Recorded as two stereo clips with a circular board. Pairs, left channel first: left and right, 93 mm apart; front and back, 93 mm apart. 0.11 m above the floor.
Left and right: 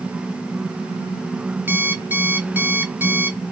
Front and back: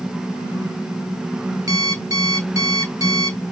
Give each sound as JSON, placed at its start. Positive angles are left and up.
{"t": 1.7, "sound": "an alarm clock", "azimuth_deg": -150, "distance_m": 1.3}